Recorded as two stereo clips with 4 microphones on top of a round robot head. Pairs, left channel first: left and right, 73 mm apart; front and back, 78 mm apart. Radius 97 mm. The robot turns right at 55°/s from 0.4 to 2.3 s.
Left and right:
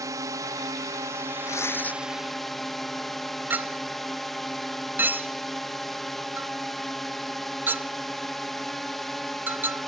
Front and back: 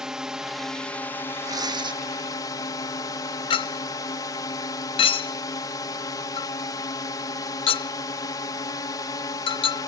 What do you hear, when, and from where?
0.0 s a drone: 100° right; by 9.9 s 5° left
1.4 s tearing paper: 135° left; by 2.0 s 165° left
3.5 s a clink: 20° right